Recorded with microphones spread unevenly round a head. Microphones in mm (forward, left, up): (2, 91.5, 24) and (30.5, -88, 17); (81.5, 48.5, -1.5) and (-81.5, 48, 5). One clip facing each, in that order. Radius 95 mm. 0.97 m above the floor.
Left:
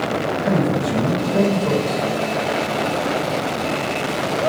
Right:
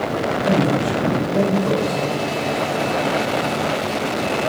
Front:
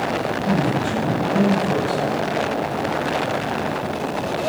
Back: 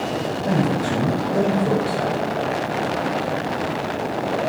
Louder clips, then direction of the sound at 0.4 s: Right 2 dB, back 1 dB; 170° left.